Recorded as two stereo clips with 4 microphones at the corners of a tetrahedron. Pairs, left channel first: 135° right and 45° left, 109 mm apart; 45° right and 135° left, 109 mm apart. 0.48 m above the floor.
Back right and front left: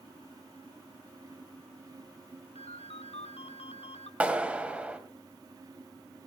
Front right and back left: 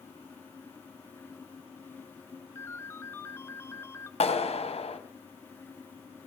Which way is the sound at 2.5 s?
110° right.